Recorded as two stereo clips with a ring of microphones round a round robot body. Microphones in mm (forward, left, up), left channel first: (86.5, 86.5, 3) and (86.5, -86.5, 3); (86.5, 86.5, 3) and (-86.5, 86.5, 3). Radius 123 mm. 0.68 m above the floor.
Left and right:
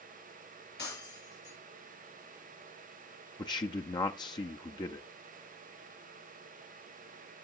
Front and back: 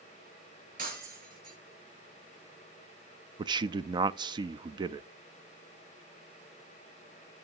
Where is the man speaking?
135° left, 0.5 m.